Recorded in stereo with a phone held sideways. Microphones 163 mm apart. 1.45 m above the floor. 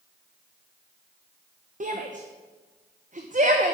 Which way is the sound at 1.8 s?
50° right (ahead or behind).